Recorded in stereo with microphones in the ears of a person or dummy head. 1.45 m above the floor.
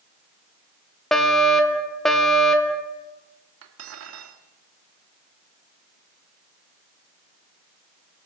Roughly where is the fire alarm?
Centre.